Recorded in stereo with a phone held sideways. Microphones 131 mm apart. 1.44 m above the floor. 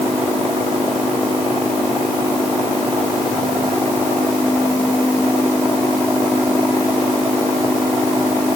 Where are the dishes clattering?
I don't hear dishes clattering.